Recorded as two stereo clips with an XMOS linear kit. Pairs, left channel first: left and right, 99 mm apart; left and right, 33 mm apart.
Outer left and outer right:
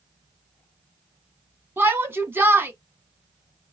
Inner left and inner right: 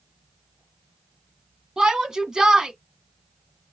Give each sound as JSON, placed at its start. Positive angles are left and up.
{"t": 1.8, "sound": "a shout", "side_deg": -20, "distance_m": 1.7}